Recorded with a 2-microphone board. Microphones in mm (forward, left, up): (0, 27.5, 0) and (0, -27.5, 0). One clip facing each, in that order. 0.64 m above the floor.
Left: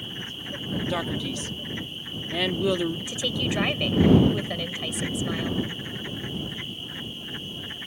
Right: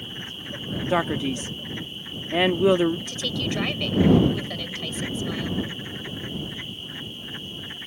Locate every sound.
0.9 s a man speaking: 30° right (ahead or behind)
3.1 s a woman speaking: 15° left (ahead or behind)